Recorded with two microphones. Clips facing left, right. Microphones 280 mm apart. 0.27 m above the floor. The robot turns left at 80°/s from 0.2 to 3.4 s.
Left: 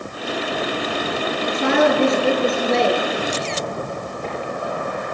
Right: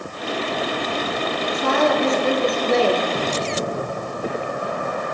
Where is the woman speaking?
100° left, 4.5 m; by 3.0 s 25° right, 4.5 m.